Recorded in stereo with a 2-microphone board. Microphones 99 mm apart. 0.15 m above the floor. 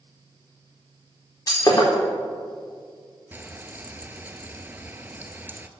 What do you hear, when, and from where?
1.5 s breaking glass: 35° left (ahead or behind), 4 m
3.3 s frying: 20° right (ahead or behind), 0.5 m